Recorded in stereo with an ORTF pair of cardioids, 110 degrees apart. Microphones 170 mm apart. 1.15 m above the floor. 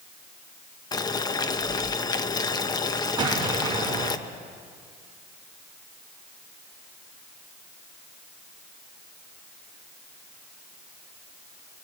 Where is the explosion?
25° right, 4 m.